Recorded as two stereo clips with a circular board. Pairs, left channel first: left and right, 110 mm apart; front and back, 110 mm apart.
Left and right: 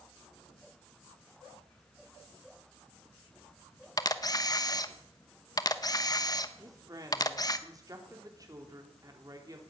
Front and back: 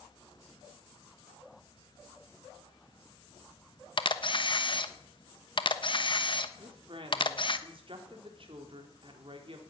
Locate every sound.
4.0 s a camera shutter: 35° left, 1.1 m
6.6 s a woman speaking: 145° right, 3.5 m